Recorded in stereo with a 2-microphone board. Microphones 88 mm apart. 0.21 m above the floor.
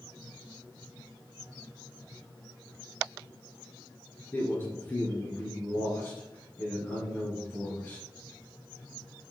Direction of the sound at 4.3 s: 25° left (ahead or behind).